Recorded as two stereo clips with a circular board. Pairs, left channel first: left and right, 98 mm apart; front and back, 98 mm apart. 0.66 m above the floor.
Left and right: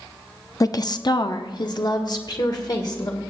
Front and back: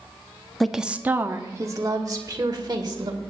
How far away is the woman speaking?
About 0.6 m.